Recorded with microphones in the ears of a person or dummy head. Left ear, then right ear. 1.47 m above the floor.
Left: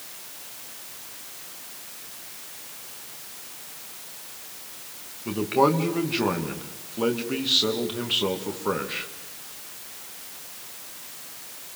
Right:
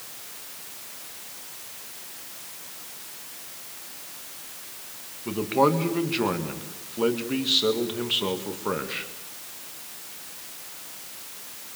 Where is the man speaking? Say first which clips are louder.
Left 1 dB; centre (ahead or behind), 1.9 m.